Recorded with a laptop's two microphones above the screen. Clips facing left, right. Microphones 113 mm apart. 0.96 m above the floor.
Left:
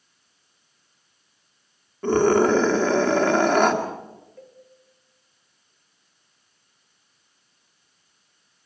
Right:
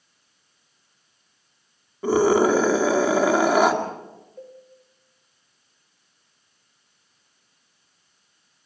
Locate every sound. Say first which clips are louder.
2.0 s a scream: even; 10° right (ahead or behind), 2 m
4.4 s a cowbell: right 5 dB; 20° right (ahead or behind), 5.5 m